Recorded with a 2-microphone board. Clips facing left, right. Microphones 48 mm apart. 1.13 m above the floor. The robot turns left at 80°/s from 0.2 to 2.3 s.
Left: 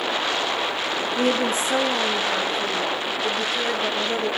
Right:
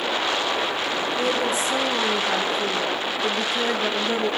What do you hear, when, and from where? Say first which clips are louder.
1.2 s a woman speaking: left 3 dB; 70° left, 1.9 m; by 4.3 s 20° right, 1.9 m